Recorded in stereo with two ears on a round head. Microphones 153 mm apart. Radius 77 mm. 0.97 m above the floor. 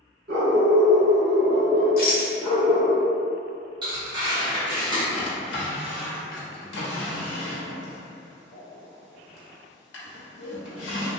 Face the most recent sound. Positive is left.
turn(degrees=80)